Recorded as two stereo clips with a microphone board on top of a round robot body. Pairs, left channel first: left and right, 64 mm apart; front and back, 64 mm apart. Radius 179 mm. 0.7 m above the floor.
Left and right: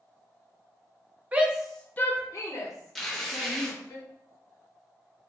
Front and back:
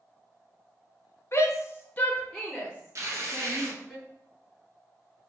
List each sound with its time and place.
1.3 s a shout: 30° right, 0.7 m; by 4.0 s 105° left, 1.6 m
3.0 s tearing paper: 175° left, 0.9 m